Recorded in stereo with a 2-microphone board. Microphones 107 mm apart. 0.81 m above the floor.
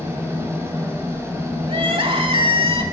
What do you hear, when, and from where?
0.0 s an engine running: 25° right (ahead or behind), 3 m
1.7 s crying: 60° right (ahead or behind), 1.4 m